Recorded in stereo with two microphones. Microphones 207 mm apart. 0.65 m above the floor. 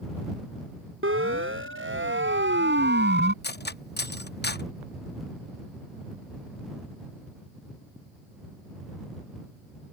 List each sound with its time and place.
1.0 s a siren: 85° right; by 3.3 s 55° right (ahead or behind)
3.4 s cutlery clinking: 55° left (ahead or behind)